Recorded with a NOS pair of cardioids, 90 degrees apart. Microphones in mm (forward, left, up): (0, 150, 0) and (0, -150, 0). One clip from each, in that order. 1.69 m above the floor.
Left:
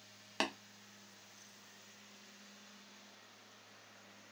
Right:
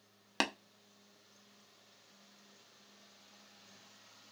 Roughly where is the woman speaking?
No woman speaking in this recording.